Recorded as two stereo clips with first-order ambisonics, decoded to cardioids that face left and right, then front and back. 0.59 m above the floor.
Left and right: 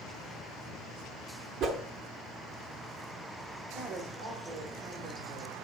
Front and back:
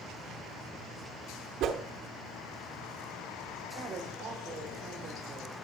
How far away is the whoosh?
About 0.8 m.